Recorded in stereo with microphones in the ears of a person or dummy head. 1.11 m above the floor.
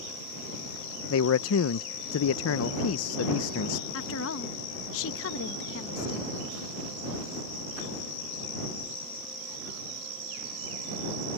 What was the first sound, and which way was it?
A man speaking, 70° left (ahead or behind).